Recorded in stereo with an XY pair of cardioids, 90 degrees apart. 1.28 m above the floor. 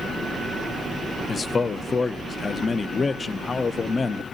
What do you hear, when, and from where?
1.3 s a man speaking: 40° left, 0.7 m